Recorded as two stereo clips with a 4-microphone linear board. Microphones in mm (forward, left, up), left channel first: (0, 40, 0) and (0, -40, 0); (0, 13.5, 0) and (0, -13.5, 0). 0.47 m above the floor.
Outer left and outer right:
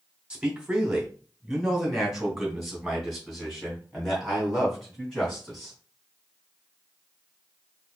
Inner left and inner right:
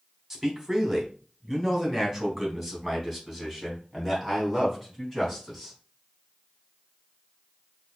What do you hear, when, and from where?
0.3 s a man speaking: 10° right (ahead or behind), 1.5 m; by 5.8 s 5° left (ahead or behind), 4 m